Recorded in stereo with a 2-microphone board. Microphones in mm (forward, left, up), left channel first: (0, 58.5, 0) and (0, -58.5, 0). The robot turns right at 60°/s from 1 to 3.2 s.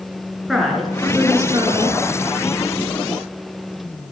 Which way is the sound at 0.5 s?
Straight behind.